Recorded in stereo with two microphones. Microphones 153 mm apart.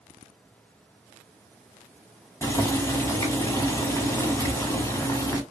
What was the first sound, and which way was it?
Boiling, 20° left (ahead or behind).